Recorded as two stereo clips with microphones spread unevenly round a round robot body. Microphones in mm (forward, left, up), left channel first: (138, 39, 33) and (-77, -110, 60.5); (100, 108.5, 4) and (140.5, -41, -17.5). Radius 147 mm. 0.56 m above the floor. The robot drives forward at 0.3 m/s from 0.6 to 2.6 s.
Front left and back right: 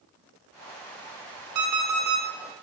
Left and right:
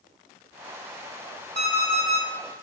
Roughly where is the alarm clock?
Behind right.